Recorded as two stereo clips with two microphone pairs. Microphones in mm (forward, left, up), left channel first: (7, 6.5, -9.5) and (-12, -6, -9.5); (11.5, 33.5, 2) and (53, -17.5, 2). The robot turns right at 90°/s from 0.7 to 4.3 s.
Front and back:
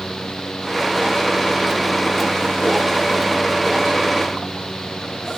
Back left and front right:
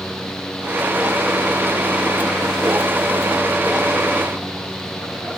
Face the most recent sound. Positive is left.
No sound to turn to.